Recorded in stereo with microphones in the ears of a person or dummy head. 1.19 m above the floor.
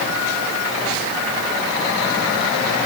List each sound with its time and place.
Only background noise.